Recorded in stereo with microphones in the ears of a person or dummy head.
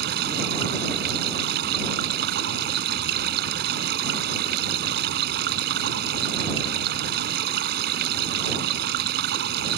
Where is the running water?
65° right (ahead or behind).